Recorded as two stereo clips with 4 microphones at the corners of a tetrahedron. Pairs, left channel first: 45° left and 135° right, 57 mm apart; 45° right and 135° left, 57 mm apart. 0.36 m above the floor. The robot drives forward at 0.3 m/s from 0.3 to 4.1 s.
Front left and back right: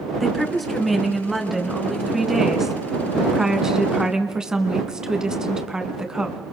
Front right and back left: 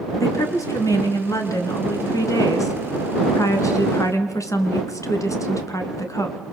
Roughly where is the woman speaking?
Ahead right.